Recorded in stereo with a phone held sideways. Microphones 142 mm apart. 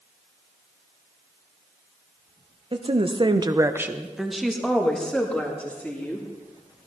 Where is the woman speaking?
40° right (ahead or behind), 0.9 m; by 6.3 s 10° left (ahead or behind), 3 m.